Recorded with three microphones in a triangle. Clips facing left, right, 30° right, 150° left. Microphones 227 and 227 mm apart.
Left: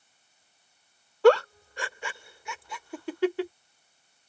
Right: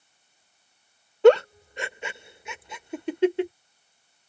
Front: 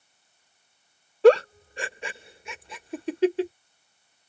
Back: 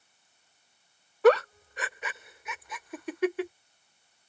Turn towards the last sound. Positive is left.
turn(degrees=-45)